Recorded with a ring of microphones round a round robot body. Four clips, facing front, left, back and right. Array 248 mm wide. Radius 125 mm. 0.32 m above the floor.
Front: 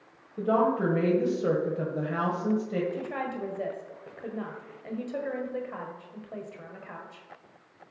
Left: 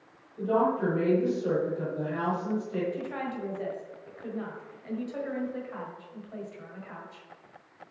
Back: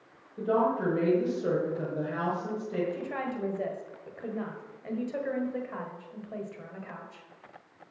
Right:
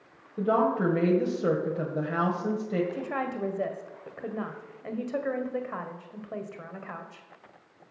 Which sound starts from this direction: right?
A woman speaking, at 2.9 s.